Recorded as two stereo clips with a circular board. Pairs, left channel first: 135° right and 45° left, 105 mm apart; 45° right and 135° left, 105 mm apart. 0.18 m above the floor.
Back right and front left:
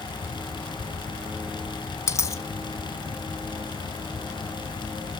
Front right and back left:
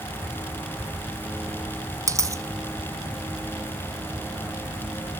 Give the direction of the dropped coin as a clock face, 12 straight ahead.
6 o'clock.